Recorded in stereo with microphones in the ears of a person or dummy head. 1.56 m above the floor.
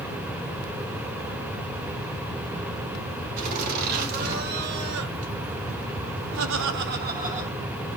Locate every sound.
3.4 s laughter: 40° right (ahead or behind), 3 m; by 7.9 s 25° right (ahead or behind), 1.3 m